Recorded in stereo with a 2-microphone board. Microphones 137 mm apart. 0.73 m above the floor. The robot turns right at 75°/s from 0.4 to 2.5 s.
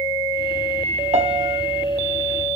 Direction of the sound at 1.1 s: 60° right.